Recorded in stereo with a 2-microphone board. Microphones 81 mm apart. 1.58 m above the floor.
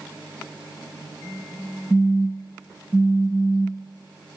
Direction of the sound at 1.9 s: 5° right (ahead or behind).